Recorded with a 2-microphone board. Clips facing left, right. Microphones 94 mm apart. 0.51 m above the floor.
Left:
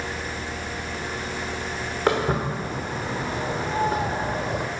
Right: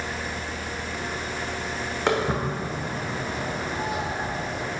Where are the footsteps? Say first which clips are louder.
Left 2 dB; 10° left (ahead or behind), 1.6 m; by 4.7 s 60° left (ahead or behind), 0.9 m.